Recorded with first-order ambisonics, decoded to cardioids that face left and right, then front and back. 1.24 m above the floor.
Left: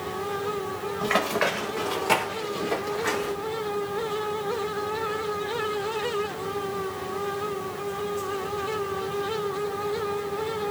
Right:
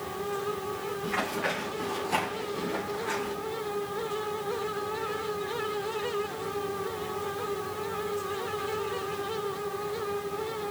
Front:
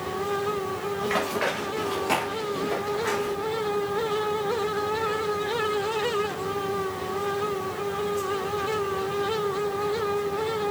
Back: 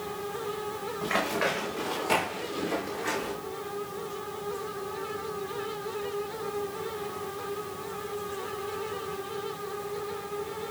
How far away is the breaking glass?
No breaking glass in this recording.